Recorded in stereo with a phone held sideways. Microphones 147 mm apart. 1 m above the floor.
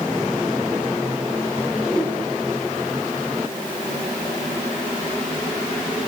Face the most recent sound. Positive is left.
turn(degrees=5)  # may be behind; listen again after turning